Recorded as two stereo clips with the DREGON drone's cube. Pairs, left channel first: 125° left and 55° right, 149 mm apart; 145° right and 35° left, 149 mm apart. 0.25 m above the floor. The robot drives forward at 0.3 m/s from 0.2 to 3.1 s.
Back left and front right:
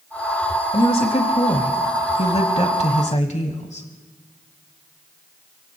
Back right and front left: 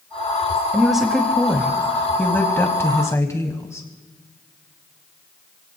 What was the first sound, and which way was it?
A woman speaking, 115° left.